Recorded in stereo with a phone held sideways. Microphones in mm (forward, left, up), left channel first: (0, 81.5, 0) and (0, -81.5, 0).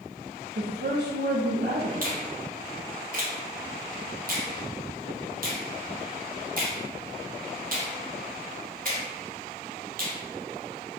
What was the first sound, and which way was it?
A woman speaking, 80° right.